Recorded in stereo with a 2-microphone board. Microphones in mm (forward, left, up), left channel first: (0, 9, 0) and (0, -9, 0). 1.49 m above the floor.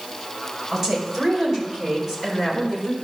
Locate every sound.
0.7 s a woman speaking: 20° right (ahead or behind), 6 m; by 2.9 s 10° left (ahead or behind), 5 m